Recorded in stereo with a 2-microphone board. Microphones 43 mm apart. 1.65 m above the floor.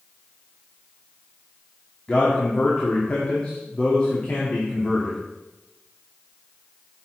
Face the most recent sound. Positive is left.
turn(degrees=25)  # may be behind; listen again after turning